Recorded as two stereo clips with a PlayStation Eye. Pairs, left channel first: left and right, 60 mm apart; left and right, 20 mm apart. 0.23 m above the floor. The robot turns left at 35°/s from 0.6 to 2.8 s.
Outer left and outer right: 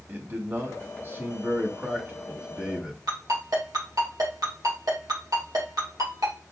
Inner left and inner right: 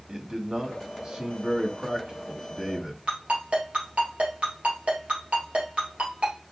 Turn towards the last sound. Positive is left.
turn(degrees=-80)